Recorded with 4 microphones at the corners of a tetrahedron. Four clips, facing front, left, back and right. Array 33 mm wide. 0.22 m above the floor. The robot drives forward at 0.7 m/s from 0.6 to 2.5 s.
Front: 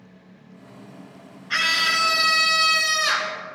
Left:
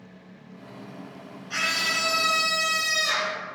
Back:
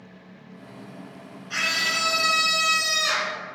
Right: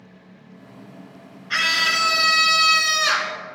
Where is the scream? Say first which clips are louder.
Right 6 dB, front 4 dB; 45° right, 2.5 m; by 3.4 s 60° right, 2 m.